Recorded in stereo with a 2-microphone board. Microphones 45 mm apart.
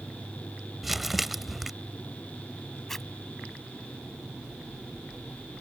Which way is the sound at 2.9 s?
5° left (ahead or behind).